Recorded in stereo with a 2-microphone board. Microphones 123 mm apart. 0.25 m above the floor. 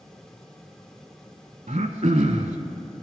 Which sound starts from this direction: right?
Throat clearing, at 1.7 s.